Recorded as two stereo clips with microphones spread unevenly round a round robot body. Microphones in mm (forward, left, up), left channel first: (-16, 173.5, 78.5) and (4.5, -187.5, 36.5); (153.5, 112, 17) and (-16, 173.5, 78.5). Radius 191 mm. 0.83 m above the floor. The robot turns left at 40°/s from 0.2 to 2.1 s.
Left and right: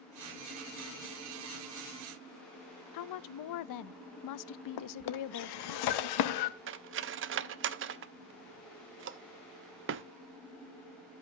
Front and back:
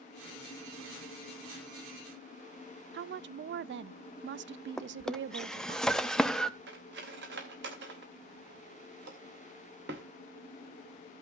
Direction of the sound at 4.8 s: 65° left.